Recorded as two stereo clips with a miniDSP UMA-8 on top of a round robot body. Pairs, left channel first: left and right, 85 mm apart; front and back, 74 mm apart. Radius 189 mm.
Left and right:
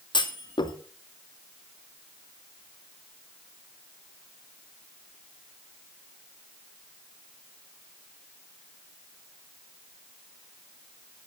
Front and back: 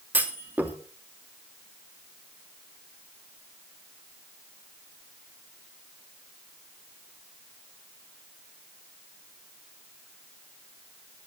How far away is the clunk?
About 2.5 m.